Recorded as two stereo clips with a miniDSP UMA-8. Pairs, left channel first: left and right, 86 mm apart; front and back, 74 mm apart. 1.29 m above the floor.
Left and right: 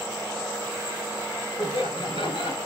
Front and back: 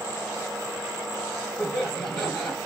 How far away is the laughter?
About 2 m.